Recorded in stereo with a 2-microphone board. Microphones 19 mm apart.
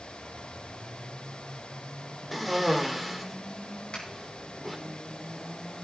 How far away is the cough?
About 1.4 m.